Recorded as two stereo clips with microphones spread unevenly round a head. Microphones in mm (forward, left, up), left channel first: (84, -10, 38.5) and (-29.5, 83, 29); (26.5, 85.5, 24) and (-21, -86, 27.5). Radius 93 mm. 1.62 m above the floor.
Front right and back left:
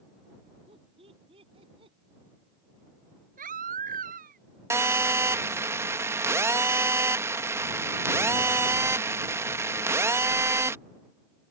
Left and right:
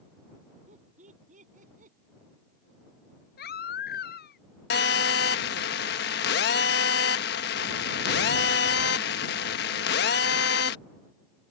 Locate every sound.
0.7 s laughter: 160° right; by 2.0 s 155° right
3.4 s a baby crying: 115° left
4.7 s a phone buzzing: 70° left